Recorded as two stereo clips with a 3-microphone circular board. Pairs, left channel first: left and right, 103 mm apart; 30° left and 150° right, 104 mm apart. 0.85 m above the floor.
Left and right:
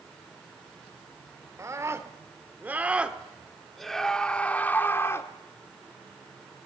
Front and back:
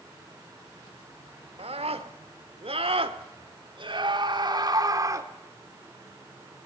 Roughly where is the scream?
Behind right.